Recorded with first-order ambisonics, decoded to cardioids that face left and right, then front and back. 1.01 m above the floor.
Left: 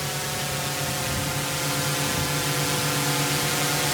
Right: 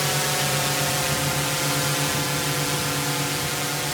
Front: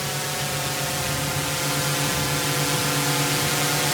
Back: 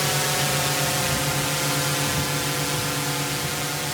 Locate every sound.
0.0 s a drone: 125° right; by 4.0 s 20° left